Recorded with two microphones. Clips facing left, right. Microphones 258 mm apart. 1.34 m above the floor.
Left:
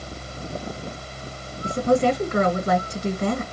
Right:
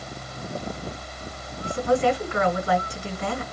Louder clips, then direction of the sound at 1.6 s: Left 2 dB; 45° left (ahead or behind).